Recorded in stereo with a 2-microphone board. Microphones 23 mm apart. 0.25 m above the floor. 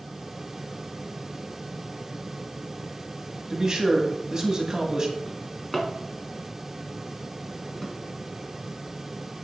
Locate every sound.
3.5 s a man speaking: 35° right (ahead or behind), 1.5 m
5.3 s a drawer: 10° left (ahead or behind), 1.5 m